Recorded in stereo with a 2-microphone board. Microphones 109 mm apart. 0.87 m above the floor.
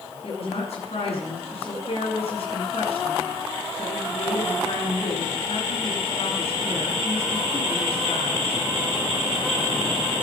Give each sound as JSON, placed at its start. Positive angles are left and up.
{"t": 0.2, "sound": "a woman speaking", "side_deg": 70, "distance_m": 10.0}